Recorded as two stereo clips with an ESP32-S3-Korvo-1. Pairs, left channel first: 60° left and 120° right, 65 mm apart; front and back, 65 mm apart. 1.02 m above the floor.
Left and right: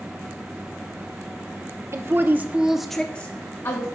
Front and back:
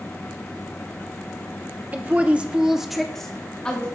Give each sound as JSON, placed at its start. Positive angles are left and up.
{"t": 1.9, "sound": "a woman speaking", "azimuth_deg": -125, "distance_m": 0.9}